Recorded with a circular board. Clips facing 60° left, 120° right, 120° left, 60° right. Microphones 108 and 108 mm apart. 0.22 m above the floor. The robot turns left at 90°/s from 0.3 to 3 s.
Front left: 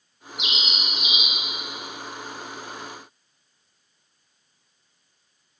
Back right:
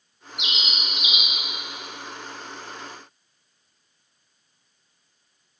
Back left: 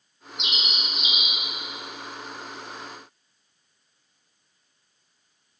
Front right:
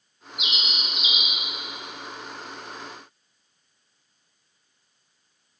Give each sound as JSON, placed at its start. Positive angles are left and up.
{"t": 0.4, "sound": "a bird", "azimuth_deg": -135, "distance_m": 2.0}